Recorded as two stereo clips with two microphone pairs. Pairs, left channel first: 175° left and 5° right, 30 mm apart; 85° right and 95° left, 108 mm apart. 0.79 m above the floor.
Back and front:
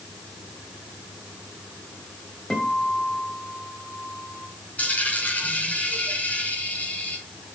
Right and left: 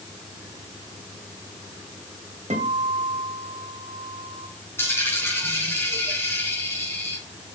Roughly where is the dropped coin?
Behind right.